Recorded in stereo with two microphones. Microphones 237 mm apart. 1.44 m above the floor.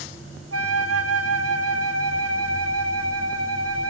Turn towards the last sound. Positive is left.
turn(degrees=-75)  # may be behind; listen again after turning